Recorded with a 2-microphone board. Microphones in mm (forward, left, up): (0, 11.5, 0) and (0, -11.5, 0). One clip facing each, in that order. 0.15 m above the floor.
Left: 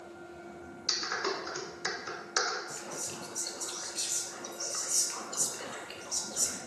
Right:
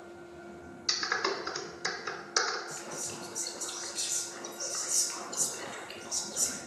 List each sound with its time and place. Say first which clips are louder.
0.9 s a clap: right 2 dB; 30° right (ahead or behind), 1.0 m
2.7 s whispering: even; 5° left (ahead or behind), 1.5 m